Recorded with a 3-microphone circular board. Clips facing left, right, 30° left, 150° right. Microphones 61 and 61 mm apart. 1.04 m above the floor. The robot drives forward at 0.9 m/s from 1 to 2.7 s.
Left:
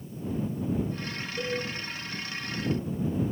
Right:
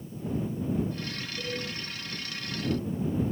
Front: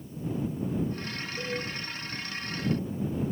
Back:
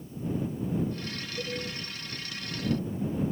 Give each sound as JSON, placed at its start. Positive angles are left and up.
{"t": 1.4, "sound": "a cowbell", "azimuth_deg": 90, "distance_m": 8.5}